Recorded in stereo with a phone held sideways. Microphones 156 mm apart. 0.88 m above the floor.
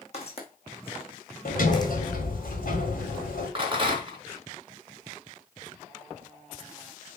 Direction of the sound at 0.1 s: 45° left (ahead or behind).